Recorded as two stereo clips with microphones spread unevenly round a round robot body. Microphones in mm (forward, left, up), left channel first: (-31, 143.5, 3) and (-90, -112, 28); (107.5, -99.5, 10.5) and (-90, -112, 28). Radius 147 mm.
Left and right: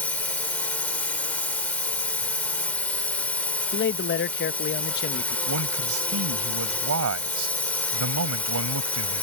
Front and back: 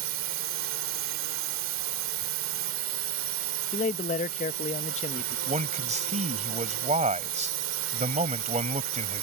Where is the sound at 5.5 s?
125° right.